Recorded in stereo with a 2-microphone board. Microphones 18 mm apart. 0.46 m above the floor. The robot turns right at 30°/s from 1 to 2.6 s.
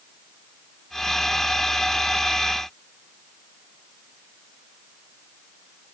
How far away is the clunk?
I don't hear a clunk.